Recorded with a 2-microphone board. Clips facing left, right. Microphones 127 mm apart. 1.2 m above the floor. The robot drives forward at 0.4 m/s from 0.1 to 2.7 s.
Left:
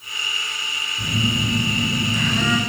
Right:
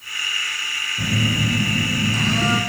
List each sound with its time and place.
1.0 s a phone buzzing: 45° right (ahead or behind), 1.8 m; by 2.6 s 35° right (ahead or behind), 2 m